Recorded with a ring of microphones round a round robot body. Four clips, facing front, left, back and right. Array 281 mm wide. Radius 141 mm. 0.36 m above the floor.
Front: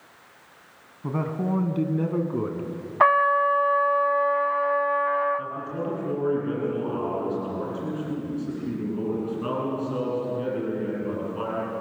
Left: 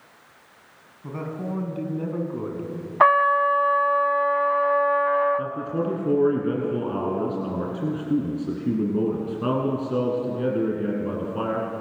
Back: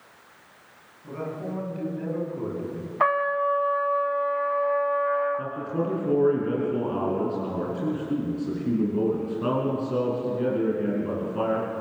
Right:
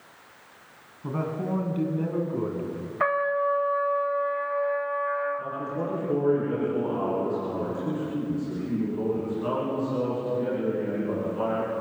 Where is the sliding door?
I don't hear a sliding door.